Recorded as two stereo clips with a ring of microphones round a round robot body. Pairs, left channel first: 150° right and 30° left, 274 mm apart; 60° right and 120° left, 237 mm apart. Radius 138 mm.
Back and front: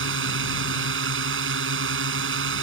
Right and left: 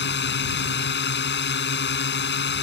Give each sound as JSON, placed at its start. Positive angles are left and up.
{"t": 0.0, "sound": "a drone", "azimuth_deg": -20}